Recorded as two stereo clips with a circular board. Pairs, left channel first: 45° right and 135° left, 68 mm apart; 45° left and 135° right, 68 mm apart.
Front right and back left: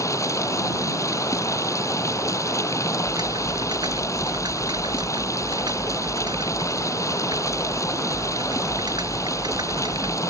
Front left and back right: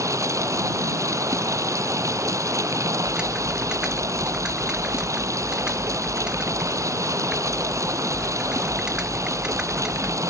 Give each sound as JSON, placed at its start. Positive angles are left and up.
{"t": 0.0, "sound": "running water", "azimuth_deg": -90}
{"t": 3.0, "sound": "typing on a keyboard", "azimuth_deg": 145}